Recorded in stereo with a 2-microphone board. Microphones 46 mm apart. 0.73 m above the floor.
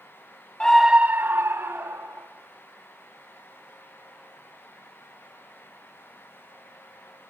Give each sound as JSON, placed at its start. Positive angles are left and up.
{"t": 0.6, "sound": "a scream", "side_deg": 20, "distance_m": 0.7}